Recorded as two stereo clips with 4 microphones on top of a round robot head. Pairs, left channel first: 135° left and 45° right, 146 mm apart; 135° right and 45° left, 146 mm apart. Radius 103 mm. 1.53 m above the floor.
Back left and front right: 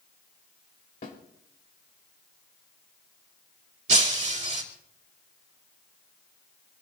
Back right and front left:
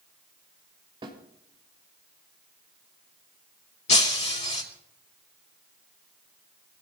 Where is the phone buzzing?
I don't hear a phone buzzing.